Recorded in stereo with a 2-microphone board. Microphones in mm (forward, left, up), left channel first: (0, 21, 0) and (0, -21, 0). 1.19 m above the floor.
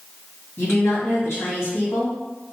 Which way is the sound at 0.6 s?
85° left.